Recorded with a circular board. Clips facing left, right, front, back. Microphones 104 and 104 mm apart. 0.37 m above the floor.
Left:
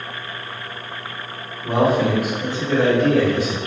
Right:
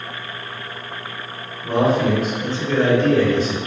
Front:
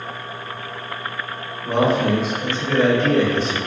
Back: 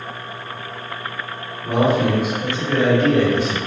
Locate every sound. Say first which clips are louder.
1.6 s a man speaking: even, back 1 dB; 145° left, 1.4 m